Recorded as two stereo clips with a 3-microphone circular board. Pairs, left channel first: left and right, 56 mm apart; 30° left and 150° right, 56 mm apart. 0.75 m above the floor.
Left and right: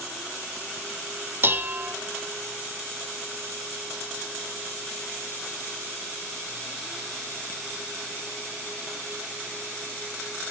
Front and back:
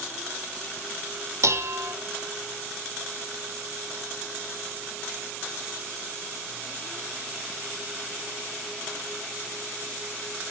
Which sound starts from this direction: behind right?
Dishes clattering, at 1.4 s.